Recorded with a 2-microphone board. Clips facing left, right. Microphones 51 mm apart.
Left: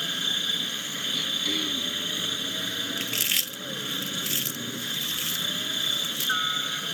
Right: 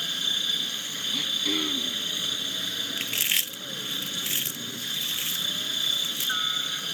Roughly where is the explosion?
No explosion in this recording.